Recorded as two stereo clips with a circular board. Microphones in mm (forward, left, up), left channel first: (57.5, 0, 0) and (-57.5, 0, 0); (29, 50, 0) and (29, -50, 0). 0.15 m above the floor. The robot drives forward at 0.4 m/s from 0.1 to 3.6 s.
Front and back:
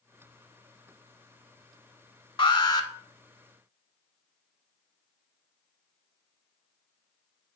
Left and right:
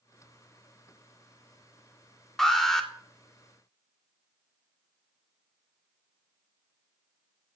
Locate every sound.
2.4 s an alarm: 5° left, 0.9 m; by 2.9 s 10° left, 0.8 m